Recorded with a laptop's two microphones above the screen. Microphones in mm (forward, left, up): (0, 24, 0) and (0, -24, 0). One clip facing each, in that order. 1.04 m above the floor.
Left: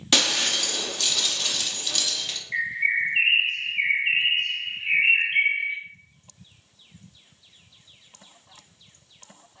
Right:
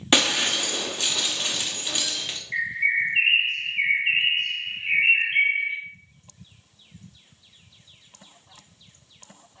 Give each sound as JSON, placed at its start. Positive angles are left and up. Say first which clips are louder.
{"t": 0.1, "sound": "breaking glass", "louder": "right 2 dB", "side_deg": -25, "distance_m": 0.7}
{"t": 2.5, "sound": "a bird", "louder": "right 1 dB", "side_deg": 0, "distance_m": 0.7}